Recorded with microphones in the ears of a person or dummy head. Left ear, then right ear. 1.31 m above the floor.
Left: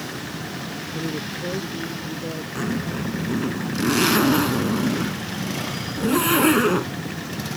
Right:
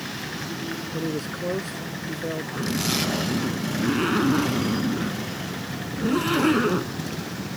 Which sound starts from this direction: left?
A zipper, at 2.5 s.